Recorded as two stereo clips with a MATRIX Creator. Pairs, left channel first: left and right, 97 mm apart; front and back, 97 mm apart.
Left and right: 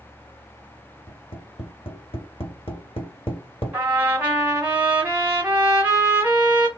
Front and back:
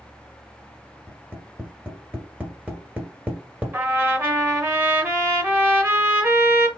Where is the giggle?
I don't hear a giggle.